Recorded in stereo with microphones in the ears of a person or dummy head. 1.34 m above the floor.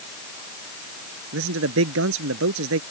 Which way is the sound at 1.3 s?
75° right (ahead or behind).